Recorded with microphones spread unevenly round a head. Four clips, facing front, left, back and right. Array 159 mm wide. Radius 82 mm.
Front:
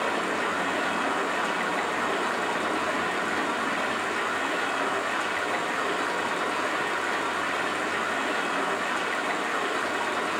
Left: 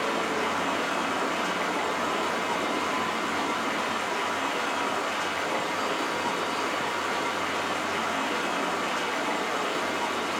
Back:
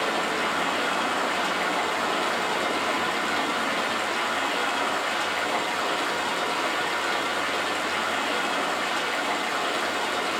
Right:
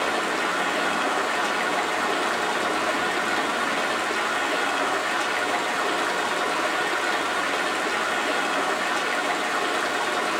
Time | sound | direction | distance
0.0 | running water | 85° right | 3 m